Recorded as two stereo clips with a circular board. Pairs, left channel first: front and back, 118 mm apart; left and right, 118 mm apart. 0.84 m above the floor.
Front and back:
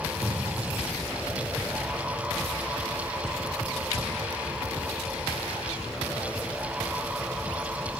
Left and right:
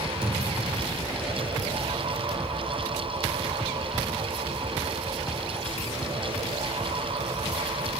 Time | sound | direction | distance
0.2 | a thud | 145° left | 6 m